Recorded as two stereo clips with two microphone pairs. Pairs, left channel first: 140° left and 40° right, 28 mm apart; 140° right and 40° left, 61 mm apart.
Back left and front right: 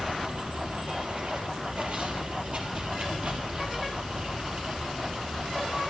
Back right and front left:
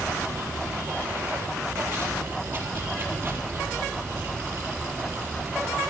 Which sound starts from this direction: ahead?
Running water, at 0.0 s.